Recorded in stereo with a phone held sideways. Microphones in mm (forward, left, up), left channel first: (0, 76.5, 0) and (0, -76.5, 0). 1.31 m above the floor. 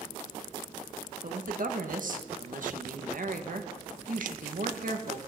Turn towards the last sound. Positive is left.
turn(degrees=-60)  # may be behind; listen again after turning